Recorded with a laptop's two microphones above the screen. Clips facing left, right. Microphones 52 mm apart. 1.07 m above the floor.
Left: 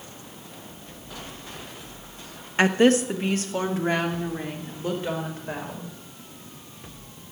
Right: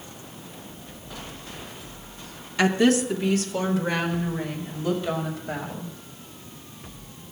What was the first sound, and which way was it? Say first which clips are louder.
A woman speaking: left 1 dB; 35° left (ahead or behind).